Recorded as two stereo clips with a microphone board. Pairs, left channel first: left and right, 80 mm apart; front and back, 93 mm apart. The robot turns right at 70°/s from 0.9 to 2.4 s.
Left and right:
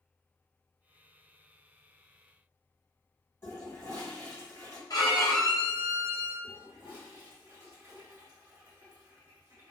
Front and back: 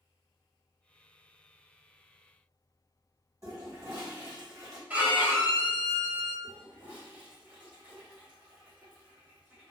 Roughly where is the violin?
Left.